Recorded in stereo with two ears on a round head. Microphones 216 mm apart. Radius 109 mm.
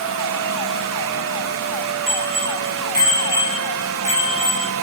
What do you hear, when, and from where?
2.1 s a bicycle bell: 50° right (ahead or behind), 9.5 m; by 4.7 s 20° right (ahead or behind), 7.5 m